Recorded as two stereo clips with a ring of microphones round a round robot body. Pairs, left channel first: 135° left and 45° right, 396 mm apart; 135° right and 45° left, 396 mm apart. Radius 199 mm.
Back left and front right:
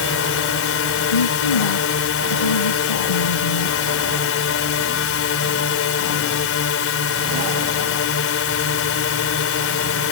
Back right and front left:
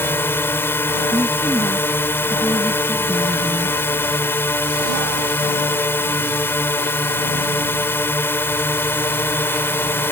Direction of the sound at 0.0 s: 145° left.